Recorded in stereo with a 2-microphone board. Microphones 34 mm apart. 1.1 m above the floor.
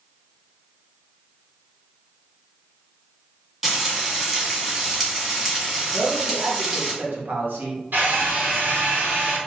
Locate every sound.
3.6 s frying: 10° right (ahead or behind), 1.8 m
5.9 s a man speaking: 75° right (ahead or behind), 1.5 m
7.9 s a drill: 80° right, 2 m